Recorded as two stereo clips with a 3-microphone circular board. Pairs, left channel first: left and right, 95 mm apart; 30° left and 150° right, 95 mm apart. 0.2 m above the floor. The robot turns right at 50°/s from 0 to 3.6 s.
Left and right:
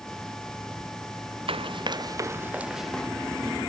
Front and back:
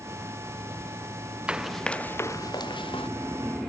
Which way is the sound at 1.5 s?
75° right.